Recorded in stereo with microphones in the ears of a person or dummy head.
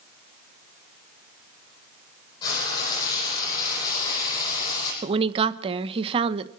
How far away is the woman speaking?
About 0.9 m.